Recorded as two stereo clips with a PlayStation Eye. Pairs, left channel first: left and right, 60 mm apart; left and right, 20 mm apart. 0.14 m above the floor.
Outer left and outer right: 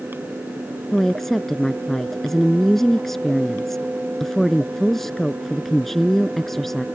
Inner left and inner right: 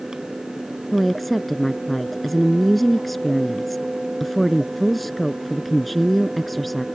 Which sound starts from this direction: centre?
A woman speaking, at 0.9 s.